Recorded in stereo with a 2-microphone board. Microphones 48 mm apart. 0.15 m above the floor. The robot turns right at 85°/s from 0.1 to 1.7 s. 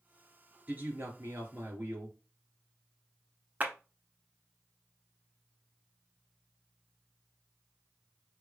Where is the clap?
35° right (ahead or behind), 1.0 m.